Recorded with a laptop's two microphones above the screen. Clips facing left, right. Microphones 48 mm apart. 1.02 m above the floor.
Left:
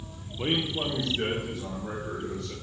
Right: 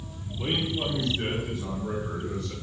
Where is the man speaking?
45° left (ahead or behind), 0.5 m; by 2.5 s 80° left, 2 m.